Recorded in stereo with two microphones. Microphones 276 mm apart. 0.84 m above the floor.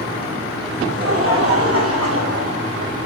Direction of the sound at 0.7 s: 50° right (ahead or behind).